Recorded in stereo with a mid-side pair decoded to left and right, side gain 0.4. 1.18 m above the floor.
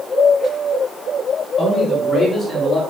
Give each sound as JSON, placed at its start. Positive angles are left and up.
{"t": 1.6, "sound": "a man speaking", "azimuth_deg": 35, "distance_m": 4.0}